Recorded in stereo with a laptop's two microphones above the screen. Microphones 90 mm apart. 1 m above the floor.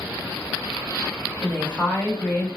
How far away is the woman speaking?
About 0.8 m.